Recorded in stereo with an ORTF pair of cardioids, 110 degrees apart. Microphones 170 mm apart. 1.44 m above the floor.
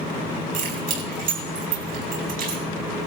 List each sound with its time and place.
0.5 s keys jangling: 60° right, 5 m